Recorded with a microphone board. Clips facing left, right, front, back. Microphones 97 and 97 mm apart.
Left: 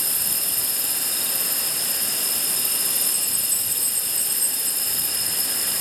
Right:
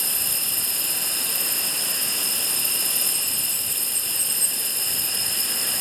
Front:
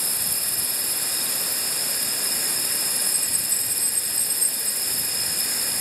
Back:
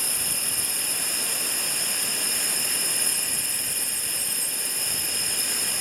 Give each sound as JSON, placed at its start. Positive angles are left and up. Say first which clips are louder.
{"t": 0.0, "sound": "an insect", "louder": "even, even", "azimuth_deg": -80}